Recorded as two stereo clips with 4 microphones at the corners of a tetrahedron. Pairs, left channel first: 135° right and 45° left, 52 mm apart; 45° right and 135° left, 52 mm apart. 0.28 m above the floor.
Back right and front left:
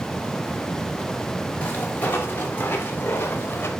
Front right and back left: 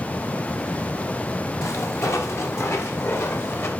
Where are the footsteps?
75° right, 6.5 m; by 3.7 s 90° right, 5 m.